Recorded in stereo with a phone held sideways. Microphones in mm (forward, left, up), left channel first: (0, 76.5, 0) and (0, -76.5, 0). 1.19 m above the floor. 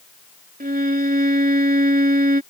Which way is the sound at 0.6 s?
80° right.